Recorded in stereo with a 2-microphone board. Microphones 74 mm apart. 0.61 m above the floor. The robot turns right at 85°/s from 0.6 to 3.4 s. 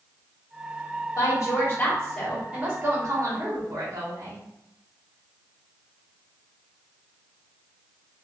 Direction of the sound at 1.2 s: 95° left.